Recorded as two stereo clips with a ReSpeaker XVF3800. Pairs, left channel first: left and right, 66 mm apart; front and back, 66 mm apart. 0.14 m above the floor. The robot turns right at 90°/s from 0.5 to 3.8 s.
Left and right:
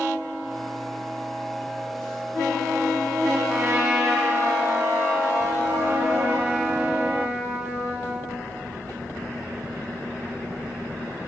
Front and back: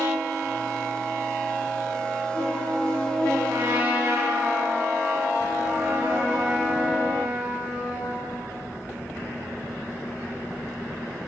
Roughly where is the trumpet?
Behind right.